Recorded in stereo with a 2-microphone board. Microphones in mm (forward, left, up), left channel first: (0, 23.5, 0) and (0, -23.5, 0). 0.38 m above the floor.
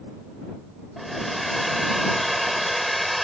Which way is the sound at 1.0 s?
Centre (ahead or behind).